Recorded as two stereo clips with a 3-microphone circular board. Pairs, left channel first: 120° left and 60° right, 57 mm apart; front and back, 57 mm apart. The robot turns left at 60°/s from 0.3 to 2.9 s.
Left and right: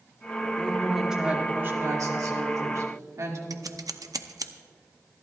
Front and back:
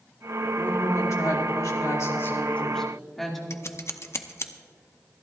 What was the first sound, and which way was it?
A woman speaking, 55° left.